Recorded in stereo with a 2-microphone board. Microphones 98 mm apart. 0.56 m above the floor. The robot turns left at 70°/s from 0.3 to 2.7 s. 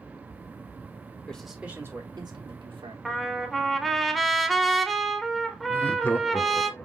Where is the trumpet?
Centre (ahead or behind), 0.6 m.